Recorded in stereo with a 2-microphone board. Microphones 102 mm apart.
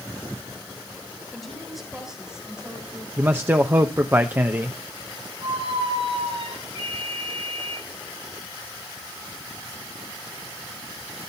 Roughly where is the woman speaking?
Centre.